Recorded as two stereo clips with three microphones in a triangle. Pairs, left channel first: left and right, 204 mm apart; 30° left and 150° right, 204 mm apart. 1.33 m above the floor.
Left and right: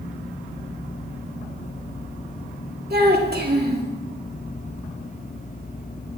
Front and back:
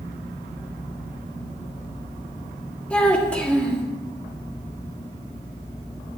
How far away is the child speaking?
About 1.8 m.